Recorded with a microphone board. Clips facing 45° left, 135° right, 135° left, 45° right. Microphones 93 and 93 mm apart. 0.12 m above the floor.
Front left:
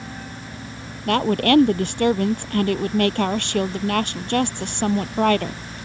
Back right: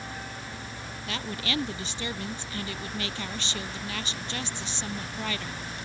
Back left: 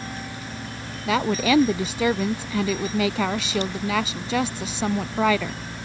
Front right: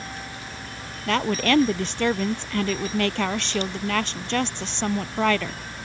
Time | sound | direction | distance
1.1 | a woman speaking | 50° left | ?